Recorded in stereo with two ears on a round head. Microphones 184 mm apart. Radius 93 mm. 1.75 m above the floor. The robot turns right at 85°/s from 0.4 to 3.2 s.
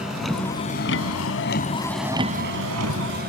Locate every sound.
0.0 s a vehicle: 5° right (ahead or behind); by 3.3 s 45° right (ahead or behind)